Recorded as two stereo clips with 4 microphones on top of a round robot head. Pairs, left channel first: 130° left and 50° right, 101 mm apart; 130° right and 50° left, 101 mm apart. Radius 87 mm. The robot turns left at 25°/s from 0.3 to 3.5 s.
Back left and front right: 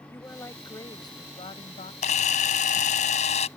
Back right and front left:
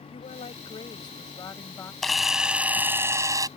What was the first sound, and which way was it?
A woman speaking, 160° right.